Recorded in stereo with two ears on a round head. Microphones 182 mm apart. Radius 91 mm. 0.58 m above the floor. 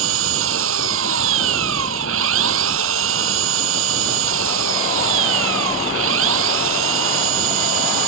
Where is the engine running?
75° right (ahead or behind).